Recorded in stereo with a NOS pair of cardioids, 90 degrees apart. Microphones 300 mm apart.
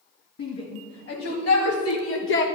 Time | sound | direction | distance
0.4 | a shout | 60° left | 2.0 m